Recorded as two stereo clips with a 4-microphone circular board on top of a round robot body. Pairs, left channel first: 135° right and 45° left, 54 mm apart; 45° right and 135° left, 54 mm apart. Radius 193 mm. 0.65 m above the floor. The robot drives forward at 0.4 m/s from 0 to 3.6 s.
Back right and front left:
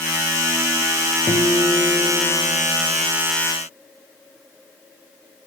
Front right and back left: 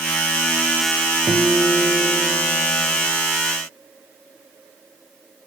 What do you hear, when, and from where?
1.3 s a guitar: 150° right, 3 m; by 3.0 s 155° right, 3.5 m